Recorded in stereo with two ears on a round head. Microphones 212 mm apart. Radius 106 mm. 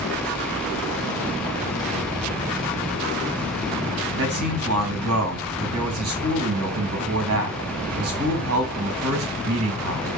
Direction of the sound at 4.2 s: 65° right (ahead or behind).